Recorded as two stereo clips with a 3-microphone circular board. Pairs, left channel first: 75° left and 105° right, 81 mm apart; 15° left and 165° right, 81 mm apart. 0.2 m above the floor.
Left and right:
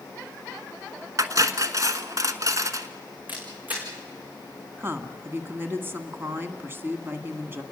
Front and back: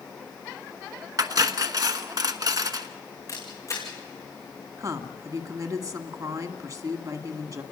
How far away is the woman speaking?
About 1.8 m.